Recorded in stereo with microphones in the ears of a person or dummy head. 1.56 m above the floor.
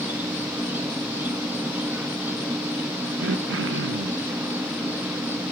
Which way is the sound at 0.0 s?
10° right (ahead or behind).